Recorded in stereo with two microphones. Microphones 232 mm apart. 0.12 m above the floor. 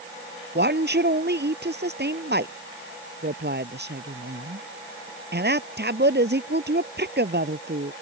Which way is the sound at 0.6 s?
45° right (ahead or behind).